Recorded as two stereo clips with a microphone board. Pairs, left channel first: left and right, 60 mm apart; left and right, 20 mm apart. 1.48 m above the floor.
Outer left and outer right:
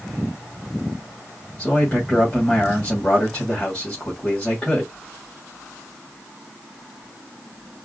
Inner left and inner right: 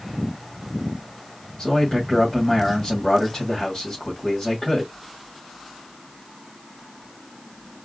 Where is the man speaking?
20° left (ahead or behind), 2.5 m.